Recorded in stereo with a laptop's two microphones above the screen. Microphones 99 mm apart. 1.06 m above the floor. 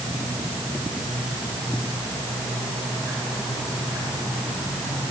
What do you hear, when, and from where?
Only background noise.